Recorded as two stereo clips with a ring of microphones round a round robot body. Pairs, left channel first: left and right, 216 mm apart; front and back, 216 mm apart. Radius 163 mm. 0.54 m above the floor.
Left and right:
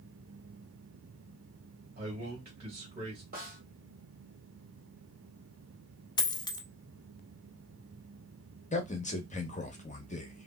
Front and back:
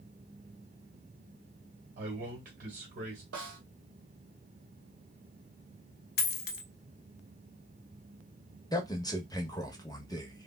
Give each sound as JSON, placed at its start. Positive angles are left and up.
{"t": 2.0, "sound": "a man speaking", "azimuth_deg": -145, "distance_m": 1.5}
{"t": 3.3, "sound": "a snare drum", "azimuth_deg": -145, "distance_m": 1.3}
{"t": 6.2, "sound": "a dropped coin", "azimuth_deg": 25, "distance_m": 0.5}
{"t": 8.7, "sound": "a man speaking", "azimuth_deg": 60, "distance_m": 1.0}